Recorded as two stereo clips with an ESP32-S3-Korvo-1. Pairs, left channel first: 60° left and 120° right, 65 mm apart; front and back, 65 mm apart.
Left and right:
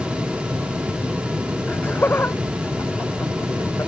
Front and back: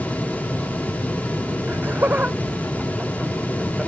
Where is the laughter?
125° left; by 3.9 s 100° left.